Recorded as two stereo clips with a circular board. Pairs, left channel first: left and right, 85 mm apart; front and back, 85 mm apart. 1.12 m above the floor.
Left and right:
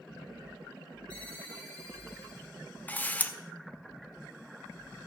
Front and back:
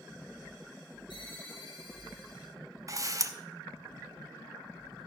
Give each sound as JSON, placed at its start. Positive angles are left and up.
{"t": 1.1, "sound": "a ringtone", "azimuth_deg": 15, "distance_m": 4.0}
{"t": 2.9, "sound": "a camera shutter", "azimuth_deg": 155, "distance_m": 0.7}